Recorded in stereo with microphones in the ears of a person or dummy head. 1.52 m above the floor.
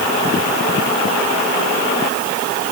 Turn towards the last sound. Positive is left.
No sound to turn to.